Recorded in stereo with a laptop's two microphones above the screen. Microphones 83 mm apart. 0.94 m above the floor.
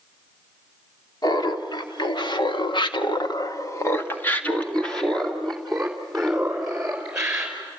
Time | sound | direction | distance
1.2 | laughter | 55° left (ahead or behind) | 2.5 m